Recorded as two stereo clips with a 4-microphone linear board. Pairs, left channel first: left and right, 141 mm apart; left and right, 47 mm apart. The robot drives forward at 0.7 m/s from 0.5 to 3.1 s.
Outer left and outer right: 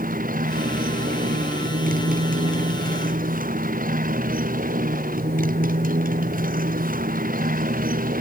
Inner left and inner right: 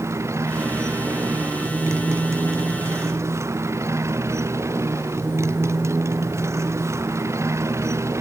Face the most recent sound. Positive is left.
turn(degrees=-85)